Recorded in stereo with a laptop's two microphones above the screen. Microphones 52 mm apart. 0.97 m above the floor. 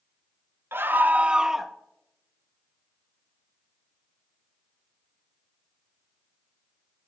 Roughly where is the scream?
Right.